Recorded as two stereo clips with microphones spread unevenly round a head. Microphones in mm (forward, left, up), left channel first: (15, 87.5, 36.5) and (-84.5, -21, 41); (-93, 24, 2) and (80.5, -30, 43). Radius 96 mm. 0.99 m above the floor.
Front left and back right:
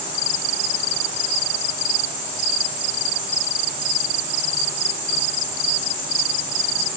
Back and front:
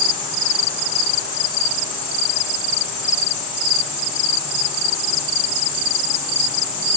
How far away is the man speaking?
I don't hear a man speaking.